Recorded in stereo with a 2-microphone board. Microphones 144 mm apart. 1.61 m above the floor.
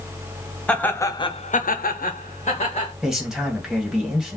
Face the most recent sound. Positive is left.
turn(degrees=-5)  # may be behind; listen again after turning